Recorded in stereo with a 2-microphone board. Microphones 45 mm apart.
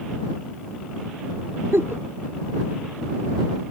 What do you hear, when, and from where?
1.7 s a giggle: 60° right (ahead or behind)